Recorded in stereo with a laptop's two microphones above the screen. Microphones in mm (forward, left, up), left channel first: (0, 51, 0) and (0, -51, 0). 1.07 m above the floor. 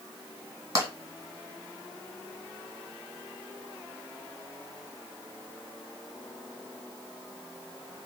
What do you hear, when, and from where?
0.8 s tapping: 30° right (ahead or behind), 1.7 m